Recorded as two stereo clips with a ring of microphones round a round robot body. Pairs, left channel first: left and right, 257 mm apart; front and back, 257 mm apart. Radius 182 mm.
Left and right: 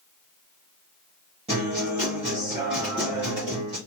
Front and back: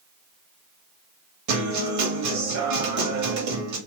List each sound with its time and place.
1.5 s a guitar: 165° right, 0.9 m